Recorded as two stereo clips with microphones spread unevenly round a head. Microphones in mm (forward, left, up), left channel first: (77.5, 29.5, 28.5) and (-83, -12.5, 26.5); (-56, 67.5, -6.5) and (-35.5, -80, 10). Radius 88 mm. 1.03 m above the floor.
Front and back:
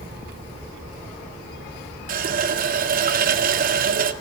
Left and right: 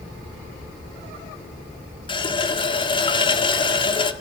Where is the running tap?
155° left, 1.7 m.